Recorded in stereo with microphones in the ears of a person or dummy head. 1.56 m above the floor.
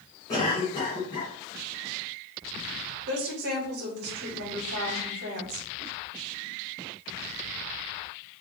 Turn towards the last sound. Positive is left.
turn(degrees=-60)  # may be behind; listen again after turning